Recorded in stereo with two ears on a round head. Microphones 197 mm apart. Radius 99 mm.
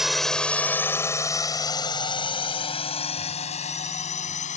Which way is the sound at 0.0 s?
Centre (ahead or behind).